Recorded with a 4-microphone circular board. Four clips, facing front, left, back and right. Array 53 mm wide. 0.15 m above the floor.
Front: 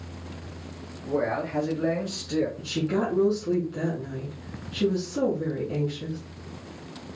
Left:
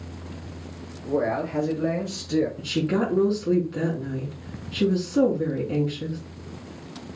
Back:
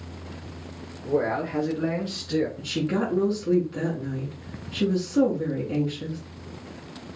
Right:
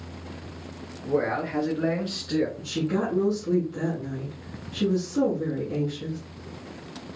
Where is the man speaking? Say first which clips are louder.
Left 1 dB, back 2 dB; 90° right, 3 m; by 2.5 s 110° right, 2.5 m.